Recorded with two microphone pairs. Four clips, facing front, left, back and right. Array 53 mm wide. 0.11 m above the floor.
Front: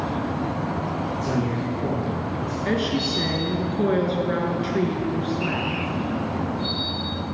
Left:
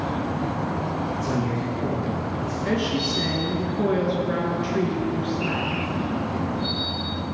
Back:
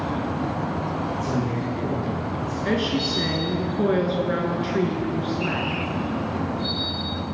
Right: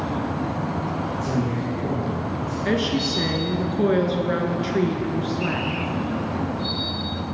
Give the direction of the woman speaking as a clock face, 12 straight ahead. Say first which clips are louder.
Right 2 dB, even; 4 o'clock.